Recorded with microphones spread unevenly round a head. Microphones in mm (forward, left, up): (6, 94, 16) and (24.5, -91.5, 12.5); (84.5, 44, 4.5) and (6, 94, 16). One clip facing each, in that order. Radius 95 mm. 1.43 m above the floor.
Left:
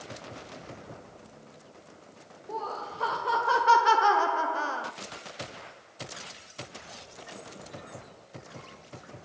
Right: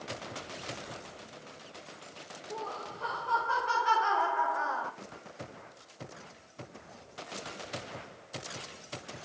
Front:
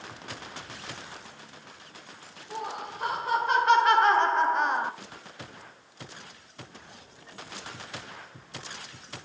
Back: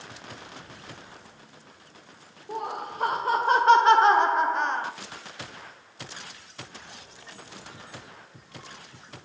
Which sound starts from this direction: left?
Laughter, at 2.5 s.